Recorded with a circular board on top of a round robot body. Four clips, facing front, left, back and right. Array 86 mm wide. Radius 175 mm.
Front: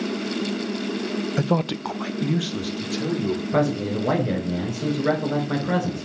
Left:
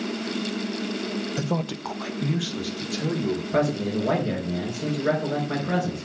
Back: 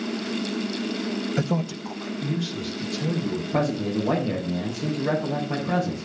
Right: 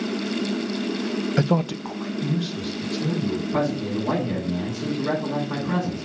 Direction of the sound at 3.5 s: 30° left.